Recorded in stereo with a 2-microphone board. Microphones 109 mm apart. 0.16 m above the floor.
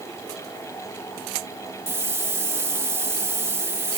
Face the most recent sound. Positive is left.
turn(degrees=-25)  # may be behind; listen again after turning